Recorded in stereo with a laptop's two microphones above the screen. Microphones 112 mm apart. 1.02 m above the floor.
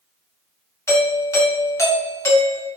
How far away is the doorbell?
About 1.2 m.